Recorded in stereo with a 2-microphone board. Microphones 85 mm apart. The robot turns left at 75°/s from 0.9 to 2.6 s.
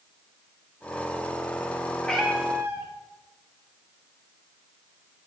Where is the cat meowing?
15° left, 1.8 m; by 2.9 s 30° right, 1.8 m.